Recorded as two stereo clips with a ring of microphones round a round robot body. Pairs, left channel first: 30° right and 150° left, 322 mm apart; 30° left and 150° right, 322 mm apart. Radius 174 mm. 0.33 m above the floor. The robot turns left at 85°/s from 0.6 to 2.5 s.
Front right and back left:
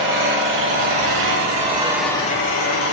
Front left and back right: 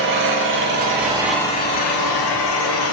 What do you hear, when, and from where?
0.0 s an engine running: straight behind, 5.5 m; by 2.9 s 20° left, 5.5 m